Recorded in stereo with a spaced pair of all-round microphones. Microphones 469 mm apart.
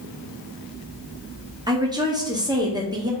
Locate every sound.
1.7 s a woman speaking: 10° right (ahead or behind), 1.0 m